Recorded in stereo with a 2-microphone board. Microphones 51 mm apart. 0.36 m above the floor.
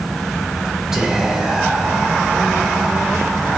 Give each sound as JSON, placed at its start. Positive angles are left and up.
{"t": 0.9, "sound": "whispering", "side_deg": -10, "distance_m": 0.9}